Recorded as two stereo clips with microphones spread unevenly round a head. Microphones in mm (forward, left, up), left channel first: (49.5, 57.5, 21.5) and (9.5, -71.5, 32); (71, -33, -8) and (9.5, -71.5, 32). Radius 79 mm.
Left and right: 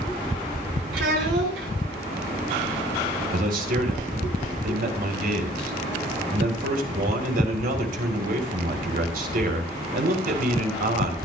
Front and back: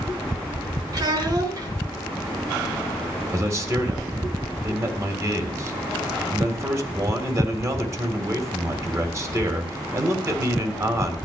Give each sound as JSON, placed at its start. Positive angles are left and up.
{"t": 0.9, "sound": "a child speaking", "azimuth_deg": -115, "distance_m": 7.5}
{"t": 3.3, "sound": "a man speaking", "azimuth_deg": -90, "distance_m": 3.5}